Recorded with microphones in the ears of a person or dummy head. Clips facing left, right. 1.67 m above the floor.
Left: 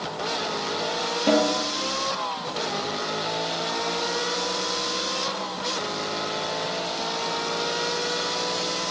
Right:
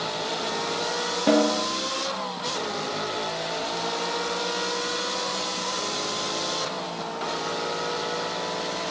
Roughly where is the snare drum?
Centre.